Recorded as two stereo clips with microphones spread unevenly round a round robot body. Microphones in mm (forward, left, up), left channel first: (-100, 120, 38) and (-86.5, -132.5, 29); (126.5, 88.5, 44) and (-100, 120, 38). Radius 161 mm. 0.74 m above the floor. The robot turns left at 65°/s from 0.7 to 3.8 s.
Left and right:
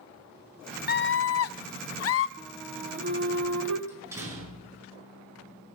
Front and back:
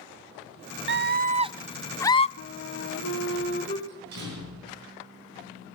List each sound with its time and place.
0.9 s a scream: 145° left, 0.7 m; by 2.3 s 55° left, 0.7 m
2.4 s a flute: 15° left, 0.8 m; by 3.8 s 75° right, 0.8 m
3.9 s a door slam: 165° right, 8.5 m